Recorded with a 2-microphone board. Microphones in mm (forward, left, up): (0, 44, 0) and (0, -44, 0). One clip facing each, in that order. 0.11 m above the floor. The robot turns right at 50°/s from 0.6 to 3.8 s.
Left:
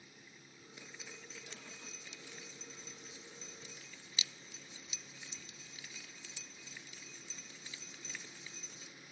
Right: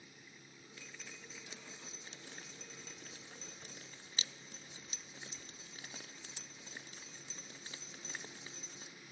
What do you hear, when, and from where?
0.8 s dripping: 15° left (ahead or behind), 0.7 m; by 8.9 s 40° right (ahead or behind), 0.7 m